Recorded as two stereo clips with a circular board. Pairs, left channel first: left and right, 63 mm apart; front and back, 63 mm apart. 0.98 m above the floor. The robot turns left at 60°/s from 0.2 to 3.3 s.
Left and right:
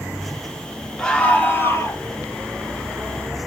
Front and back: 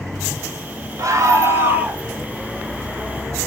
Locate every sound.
1.0 s a scream: 170° left, 2.5 m; by 2.0 s 110° left, 2.5 m